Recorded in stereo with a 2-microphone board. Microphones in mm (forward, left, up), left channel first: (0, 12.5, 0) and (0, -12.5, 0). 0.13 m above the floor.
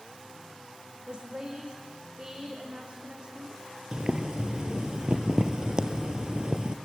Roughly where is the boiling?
Right.